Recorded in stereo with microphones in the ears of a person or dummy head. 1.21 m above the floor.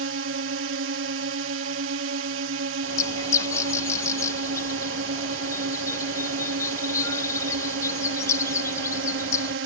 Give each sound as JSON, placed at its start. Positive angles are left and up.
{"t": 0.0, "sound": "a drone", "side_deg": -70}
{"t": 2.8, "sound": "a bird", "side_deg": 15}